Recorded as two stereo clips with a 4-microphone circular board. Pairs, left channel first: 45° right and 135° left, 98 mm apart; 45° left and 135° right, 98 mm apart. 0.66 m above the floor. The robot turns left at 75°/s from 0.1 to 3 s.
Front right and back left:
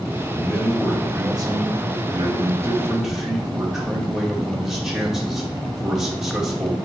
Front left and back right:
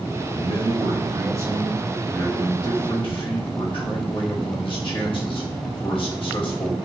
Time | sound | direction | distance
0.3 | a man speaking | 105° right | 2 m